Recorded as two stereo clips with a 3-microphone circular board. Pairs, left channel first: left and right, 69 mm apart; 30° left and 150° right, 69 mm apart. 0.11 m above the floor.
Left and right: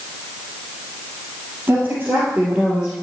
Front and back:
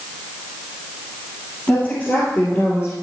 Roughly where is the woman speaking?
Ahead right.